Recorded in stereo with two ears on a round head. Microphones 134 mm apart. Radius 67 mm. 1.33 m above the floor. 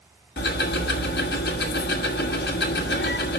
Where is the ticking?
75° left (ahead or behind), 1.6 m.